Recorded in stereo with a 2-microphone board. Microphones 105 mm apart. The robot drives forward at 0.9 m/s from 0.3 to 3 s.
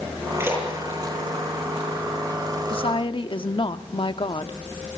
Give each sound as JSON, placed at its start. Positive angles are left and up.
{"t": 0.4, "sound": "a splash", "side_deg": -20, "distance_m": 9.5}
{"t": 2.7, "sound": "a woman speaking", "side_deg": 60, "distance_m": 1.0}